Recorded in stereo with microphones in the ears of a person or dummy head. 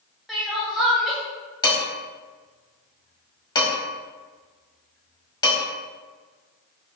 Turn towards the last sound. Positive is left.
turn(degrees=25)  # may be behind; listen again after turning